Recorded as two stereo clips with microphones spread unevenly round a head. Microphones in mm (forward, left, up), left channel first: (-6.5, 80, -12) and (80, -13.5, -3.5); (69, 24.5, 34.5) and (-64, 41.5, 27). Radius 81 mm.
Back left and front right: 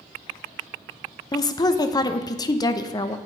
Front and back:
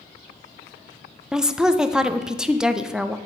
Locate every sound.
1.3 s a woman speaking: 95° left, 0.5 m